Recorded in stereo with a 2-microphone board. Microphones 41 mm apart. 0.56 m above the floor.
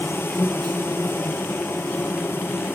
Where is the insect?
75° left (ahead or behind), 1.4 m.